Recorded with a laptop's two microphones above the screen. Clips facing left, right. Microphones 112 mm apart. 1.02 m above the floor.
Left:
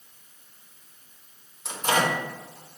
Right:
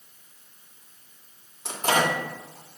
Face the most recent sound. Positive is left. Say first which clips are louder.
# right 1 dB
turn(degrees=-70)  # may be behind; listen again after turning